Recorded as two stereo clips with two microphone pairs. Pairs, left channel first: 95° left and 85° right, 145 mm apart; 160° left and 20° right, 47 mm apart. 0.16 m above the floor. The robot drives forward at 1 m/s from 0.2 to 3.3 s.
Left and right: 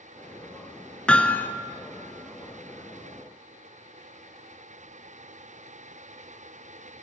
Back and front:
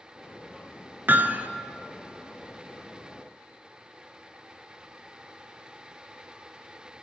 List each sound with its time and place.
1.1 s hammering: 15° left, 1.3 m; by 1.5 s 25° left, 1.0 m